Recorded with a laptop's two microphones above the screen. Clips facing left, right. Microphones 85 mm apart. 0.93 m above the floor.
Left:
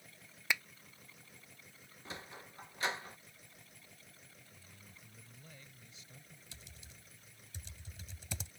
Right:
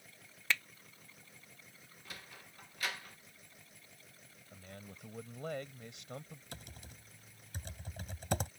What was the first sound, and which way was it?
A finger snap, 15° left (ahead or behind).